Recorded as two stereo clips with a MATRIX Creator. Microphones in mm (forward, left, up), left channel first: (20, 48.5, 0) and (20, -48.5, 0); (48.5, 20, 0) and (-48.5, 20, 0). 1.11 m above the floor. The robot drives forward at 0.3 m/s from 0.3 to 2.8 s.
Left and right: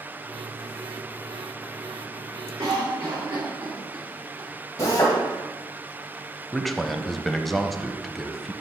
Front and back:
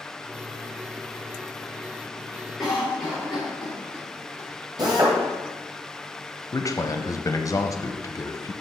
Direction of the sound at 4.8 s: 140° left.